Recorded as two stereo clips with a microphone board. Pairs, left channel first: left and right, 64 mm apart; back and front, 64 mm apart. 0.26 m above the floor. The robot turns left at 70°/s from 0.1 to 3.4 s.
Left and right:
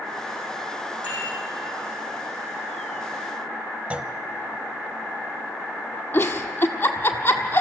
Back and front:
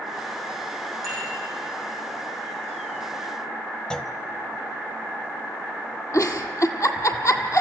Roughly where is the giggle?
Behind left.